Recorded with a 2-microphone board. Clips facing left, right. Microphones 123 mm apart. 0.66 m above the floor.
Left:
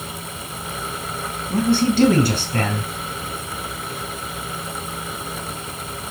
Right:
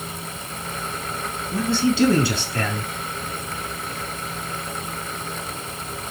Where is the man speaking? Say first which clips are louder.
Left 3 dB; 55° left (ahead or behind), 4 m.